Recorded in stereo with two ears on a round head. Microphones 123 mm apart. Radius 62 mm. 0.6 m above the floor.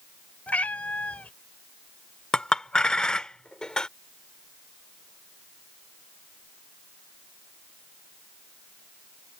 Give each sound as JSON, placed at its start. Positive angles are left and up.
{"t": 0.5, "sound": "a cat meowing", "side_deg": 10}
{"t": 2.3, "sound": "a clink", "side_deg": 5}